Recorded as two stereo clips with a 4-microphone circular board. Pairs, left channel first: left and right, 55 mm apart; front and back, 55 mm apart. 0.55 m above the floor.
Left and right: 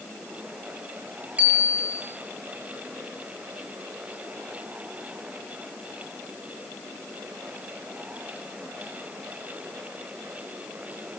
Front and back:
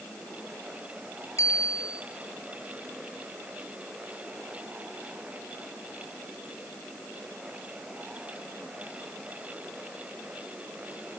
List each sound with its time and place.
1.4 s a bicycle bell: 25° right, 8.5 m